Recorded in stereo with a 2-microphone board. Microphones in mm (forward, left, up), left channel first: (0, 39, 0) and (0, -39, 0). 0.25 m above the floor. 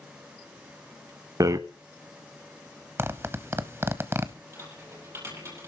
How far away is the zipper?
About 0.7 m.